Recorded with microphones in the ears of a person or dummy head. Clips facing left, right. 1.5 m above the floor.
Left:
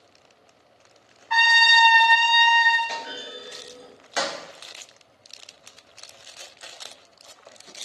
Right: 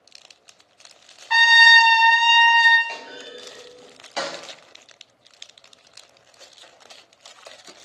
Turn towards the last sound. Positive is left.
turn(degrees=20)  # may be behind; listen again after turning